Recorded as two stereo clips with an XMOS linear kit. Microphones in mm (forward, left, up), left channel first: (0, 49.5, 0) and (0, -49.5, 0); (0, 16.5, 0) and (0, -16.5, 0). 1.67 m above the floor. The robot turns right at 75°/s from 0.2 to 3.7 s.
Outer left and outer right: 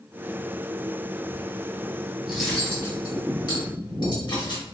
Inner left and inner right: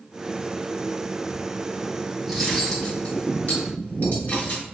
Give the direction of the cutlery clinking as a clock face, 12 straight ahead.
12 o'clock.